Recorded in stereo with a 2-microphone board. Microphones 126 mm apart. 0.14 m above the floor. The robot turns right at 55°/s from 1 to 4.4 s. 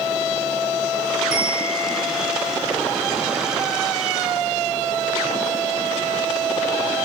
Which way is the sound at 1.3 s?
175° right.